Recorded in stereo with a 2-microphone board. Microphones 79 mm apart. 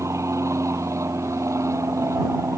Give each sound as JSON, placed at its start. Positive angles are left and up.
{"t": 0.0, "sound": "an aircraft", "side_deg": -40}